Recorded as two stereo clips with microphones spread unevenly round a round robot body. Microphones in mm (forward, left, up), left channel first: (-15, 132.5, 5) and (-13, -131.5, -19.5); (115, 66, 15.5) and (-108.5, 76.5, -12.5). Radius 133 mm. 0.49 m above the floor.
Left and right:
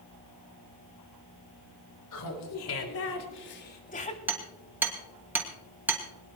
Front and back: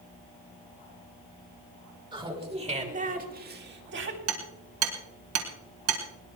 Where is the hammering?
170° right, 2.5 m.